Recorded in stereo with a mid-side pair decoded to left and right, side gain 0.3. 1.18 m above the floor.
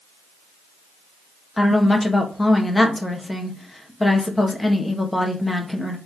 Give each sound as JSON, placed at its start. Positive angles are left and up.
{"t": 1.6, "sound": "a woman speaking", "azimuth_deg": 25, "distance_m": 1.5}